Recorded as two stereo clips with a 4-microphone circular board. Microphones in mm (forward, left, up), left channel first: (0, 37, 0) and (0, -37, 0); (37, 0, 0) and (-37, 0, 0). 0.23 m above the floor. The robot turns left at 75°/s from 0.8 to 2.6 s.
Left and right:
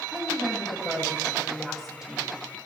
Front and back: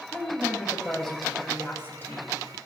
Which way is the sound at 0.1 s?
70° left.